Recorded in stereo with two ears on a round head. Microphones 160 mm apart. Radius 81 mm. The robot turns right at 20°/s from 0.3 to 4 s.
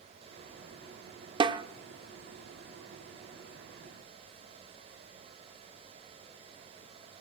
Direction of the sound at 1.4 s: 25° right (ahead or behind).